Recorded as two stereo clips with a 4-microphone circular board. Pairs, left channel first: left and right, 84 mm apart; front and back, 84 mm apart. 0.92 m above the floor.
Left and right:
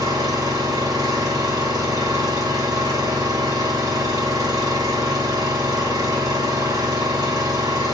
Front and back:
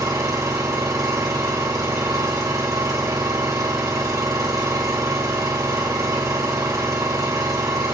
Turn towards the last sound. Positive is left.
turn(degrees=-130)